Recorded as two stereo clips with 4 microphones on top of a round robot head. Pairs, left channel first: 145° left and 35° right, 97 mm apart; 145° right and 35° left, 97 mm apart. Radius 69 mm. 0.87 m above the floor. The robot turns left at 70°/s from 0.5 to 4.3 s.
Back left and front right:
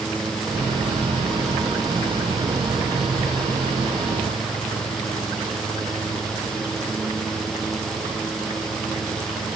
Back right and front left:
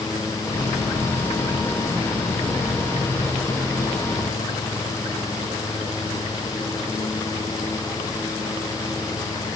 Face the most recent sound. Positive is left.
No sound to turn to.